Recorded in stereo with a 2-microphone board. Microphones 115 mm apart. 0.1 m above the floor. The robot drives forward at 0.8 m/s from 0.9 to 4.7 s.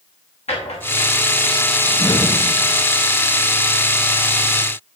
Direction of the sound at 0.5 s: 65° left (ahead or behind).